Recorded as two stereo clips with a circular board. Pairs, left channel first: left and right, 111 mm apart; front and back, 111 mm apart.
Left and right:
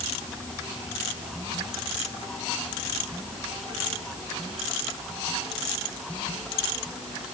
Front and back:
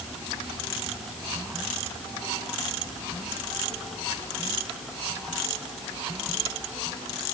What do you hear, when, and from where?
Only background noise.